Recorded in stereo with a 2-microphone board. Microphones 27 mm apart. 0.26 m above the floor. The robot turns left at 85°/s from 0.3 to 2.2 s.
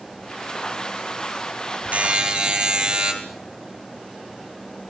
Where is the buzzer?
60° right (ahead or behind), 5 m; by 3.1 s 40° right (ahead or behind), 5 m.